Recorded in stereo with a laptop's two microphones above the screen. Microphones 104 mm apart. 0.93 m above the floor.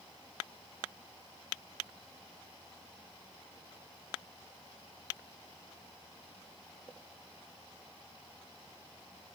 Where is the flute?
No flute in this recording.